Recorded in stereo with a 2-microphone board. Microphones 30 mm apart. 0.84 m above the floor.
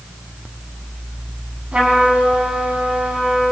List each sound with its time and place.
1.7 s a trumpet: 45° right (ahead or behind), 6 m